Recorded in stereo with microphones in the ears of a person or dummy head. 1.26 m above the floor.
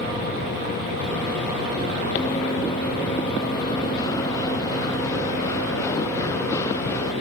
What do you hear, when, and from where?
2.1 s running footsteps: 30° left (ahead or behind); by 7.1 s 25° left (ahead or behind)